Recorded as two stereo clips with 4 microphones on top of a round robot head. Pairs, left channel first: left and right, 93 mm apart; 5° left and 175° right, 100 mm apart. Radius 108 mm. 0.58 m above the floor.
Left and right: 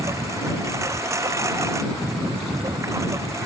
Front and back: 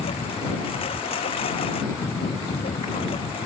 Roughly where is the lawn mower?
Ahead right.